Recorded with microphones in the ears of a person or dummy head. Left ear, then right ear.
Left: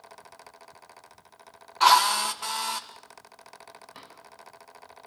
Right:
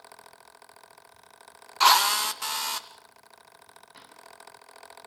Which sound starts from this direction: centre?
A drawer, at 3.9 s.